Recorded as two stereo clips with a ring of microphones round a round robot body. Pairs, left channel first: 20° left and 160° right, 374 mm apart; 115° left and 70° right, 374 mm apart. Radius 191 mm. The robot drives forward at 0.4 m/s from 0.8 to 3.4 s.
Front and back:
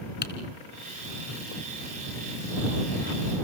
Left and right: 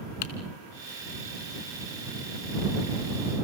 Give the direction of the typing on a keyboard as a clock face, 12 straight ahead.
9 o'clock.